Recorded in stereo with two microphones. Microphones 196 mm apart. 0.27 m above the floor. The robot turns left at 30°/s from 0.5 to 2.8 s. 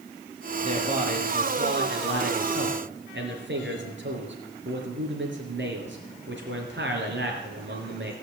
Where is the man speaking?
35° right, 4.5 m; by 8.1 s 100° right, 4.5 m.